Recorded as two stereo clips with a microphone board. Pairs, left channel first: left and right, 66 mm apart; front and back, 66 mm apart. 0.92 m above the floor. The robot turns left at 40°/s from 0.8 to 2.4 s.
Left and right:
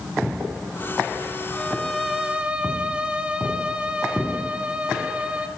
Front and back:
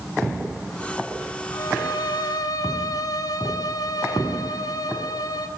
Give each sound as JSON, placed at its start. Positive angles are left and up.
{"t": 1.5, "sound": "a violin", "azimuth_deg": 20, "distance_m": 2.5}